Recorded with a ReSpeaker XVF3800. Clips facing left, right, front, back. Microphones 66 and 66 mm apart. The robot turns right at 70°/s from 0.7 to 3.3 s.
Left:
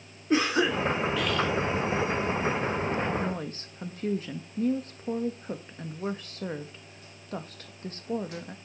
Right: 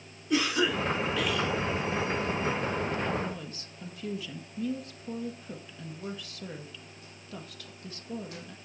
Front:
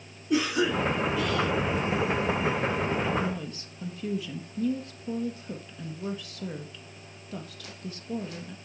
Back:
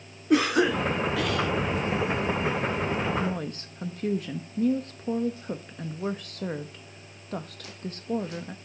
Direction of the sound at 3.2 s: 130° left.